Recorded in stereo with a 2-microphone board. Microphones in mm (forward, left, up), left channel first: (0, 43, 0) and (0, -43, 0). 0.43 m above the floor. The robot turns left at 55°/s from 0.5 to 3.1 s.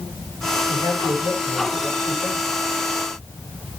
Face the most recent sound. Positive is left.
turn(degrees=-10)